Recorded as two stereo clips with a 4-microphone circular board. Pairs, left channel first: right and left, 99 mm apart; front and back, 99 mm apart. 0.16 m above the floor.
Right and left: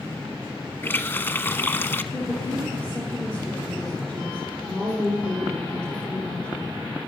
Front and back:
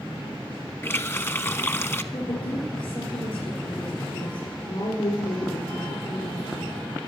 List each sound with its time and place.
0.8 s a running tap: 45° right, 0.8 m
2.1 s a woman speaking: 15° right, 4 m